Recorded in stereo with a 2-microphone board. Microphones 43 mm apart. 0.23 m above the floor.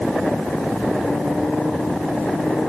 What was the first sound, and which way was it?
Only background noise.